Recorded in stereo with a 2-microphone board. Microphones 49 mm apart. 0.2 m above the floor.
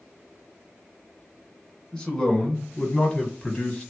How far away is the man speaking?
About 1.6 m.